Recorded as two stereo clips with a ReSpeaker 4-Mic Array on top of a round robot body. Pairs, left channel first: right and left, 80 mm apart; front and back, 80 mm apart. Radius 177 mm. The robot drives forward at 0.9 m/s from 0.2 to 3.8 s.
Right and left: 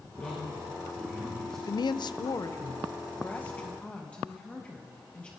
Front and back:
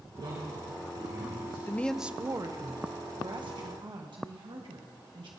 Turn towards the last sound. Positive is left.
turn(degrees=-165)